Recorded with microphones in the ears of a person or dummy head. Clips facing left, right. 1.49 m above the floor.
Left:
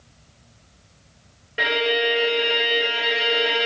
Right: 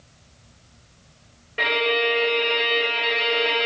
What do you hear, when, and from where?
1.6 s a violin: 5° left (ahead or behind), 0.5 m